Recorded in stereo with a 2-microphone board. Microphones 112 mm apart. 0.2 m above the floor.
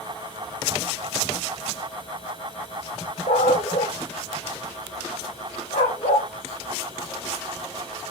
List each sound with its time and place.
3.3 s a dog barking: 80° left, 4 m